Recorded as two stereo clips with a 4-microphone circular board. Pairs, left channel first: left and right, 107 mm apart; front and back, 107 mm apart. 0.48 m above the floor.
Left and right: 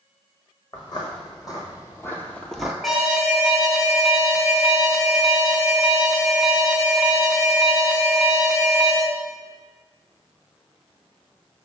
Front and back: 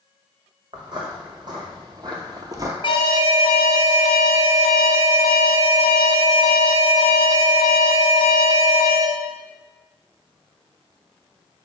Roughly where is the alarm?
Ahead.